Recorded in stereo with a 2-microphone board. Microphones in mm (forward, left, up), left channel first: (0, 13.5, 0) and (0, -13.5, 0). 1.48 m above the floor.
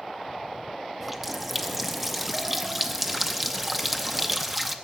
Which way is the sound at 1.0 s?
5° right (ahead or behind).